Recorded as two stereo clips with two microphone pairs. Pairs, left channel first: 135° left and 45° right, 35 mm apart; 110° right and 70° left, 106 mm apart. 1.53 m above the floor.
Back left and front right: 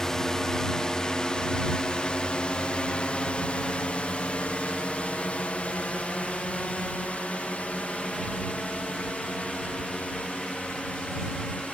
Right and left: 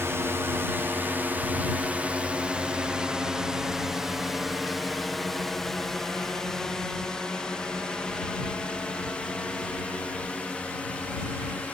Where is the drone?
80° left; by 11.7 s 170° left.